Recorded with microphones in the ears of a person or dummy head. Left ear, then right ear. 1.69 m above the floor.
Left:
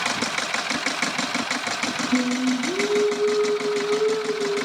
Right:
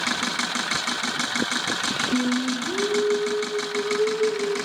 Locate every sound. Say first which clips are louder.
2.1 s singing: left 1 dB; 15° left (ahead or behind), 1.6 m